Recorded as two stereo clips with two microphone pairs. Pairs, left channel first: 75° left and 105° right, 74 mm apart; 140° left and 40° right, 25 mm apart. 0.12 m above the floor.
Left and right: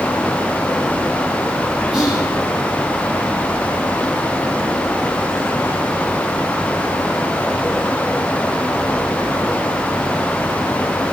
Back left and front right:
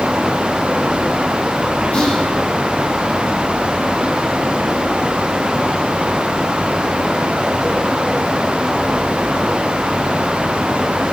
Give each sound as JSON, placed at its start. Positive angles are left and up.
{"t": 1.9, "sound": "whispering", "azimuth_deg": 175, "distance_m": 3.0}